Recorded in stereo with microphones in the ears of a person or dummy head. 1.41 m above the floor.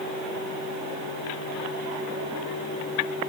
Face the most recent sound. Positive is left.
No sound to turn to.